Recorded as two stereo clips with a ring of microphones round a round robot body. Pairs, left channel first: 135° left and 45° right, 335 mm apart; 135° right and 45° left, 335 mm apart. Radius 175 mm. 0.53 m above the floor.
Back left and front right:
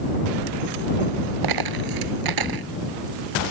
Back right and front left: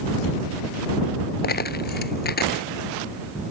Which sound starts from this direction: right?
A dropped coin, at 1.4 s.